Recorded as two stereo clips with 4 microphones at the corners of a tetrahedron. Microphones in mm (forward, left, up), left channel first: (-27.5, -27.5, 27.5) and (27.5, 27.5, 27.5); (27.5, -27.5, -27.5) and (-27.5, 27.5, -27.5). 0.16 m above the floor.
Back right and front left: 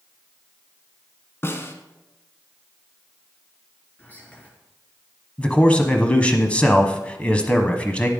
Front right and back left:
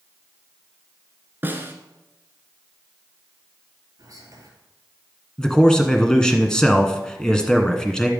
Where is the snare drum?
175° right, 1.2 m.